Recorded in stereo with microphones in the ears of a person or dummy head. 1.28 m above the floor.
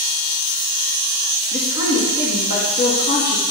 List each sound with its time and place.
1.5 s a woman speaking: 45° left (ahead or behind), 2.5 m